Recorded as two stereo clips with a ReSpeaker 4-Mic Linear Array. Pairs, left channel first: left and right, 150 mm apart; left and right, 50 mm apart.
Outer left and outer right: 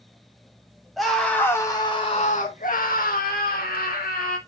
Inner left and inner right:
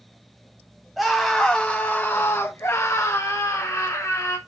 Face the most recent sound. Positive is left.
turn(degrees=70)  # may be behind; listen again after turning